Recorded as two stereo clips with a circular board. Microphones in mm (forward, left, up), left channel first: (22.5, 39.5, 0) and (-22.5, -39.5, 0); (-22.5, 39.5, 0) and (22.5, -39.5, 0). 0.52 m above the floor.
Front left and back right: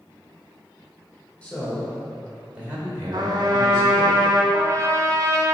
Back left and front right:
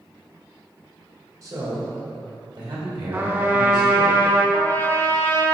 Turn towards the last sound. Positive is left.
turn(degrees=-175)